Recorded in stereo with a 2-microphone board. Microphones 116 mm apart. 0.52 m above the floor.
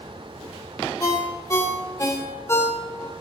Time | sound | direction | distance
1.0 | a ringtone | 25° left (ahead or behind) | 0.6 m